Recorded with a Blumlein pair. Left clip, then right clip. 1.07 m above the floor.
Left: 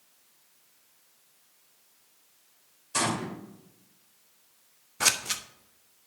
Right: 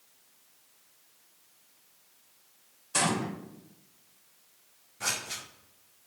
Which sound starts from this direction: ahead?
A gunshot, at 2.9 s.